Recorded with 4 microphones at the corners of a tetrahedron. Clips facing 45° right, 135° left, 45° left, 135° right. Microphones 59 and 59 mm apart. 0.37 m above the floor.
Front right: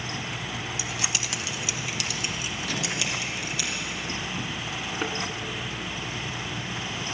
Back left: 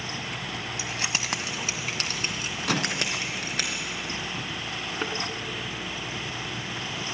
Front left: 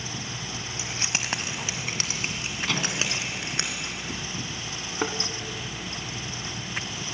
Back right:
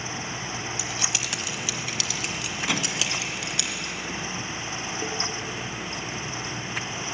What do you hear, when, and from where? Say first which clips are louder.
0.8 s keys jangling: back left 1 dB, back right 1 dB; 90° left, 1.2 m; by 3.7 s 100° left, 3.5 m
2.7 s a microwave: back left 5 dB, even; 145° left, 2.5 m
5.0 s a thud: front right 1 dB, front left 6 dB; 45° left, 1.8 m